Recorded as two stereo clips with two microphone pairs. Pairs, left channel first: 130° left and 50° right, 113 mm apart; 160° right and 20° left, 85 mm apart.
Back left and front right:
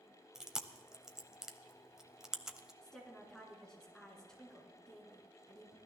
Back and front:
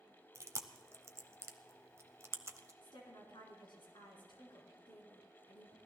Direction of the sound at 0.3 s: 30° left.